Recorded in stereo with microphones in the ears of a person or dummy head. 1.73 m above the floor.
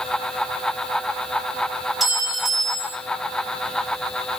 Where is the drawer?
No drawer in this recording.